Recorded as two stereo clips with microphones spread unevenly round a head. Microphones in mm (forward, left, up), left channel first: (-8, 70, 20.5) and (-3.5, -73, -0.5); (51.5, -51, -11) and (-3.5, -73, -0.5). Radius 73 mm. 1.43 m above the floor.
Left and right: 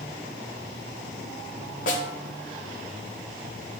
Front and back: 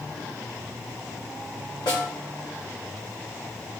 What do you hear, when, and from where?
1.9 s a snare drum: 55° left, 1.5 m